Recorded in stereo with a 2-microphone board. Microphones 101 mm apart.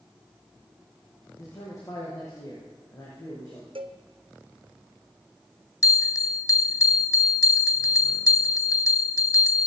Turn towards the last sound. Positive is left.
turn(degrees=35)  # may be behind; listen again after turning